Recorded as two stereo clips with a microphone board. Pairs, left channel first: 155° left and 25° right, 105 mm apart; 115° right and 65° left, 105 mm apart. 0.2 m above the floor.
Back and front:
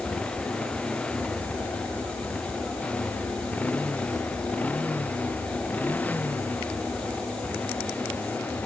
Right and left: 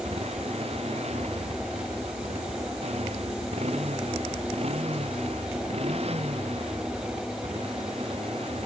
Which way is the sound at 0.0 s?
75° left.